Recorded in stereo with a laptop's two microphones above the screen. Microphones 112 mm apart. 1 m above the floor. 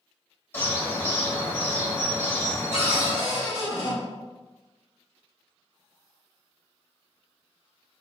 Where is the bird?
20° left (ahead or behind), 1.0 m.